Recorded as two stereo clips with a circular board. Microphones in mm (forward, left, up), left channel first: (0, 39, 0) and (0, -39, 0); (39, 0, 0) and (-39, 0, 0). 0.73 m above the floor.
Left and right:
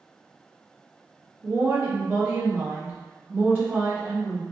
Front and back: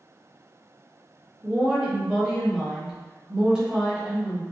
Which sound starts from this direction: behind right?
A woman speaking, at 1.4 s.